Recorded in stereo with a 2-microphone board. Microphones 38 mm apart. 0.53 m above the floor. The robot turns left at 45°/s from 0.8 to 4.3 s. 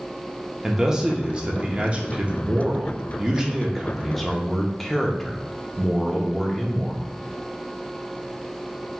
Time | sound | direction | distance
0.6 | a man speaking | 25° right | 0.7 m